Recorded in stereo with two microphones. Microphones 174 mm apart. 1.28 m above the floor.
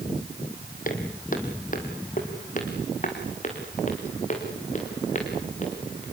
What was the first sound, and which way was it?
Footsteps, 50° left (ahead or behind).